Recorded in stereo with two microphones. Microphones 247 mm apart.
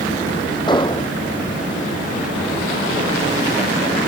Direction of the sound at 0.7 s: 20° left (ahead or behind).